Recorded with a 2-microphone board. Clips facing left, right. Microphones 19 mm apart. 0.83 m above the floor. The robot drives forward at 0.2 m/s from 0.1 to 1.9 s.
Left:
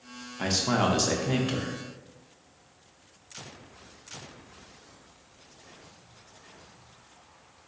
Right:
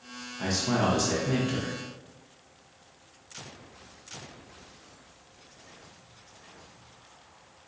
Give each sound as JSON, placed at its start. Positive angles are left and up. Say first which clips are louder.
{"t": 0.4, "sound": "a man speaking", "louder": "left 1 dB", "side_deg": 20, "distance_m": 0.6}